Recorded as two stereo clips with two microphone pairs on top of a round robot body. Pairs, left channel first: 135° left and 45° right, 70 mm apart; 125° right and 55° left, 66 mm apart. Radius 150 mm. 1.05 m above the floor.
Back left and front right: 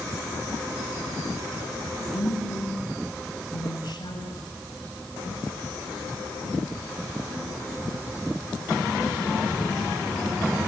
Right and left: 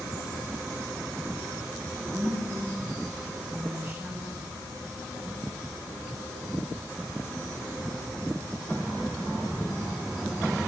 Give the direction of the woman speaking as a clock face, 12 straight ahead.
7 o'clock.